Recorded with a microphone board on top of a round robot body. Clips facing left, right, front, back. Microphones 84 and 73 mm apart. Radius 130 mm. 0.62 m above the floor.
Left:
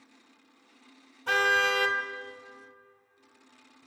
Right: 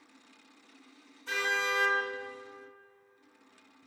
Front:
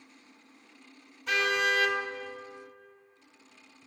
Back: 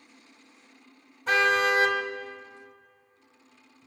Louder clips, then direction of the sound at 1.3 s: Left 7 dB, back 5 dB; 120° left.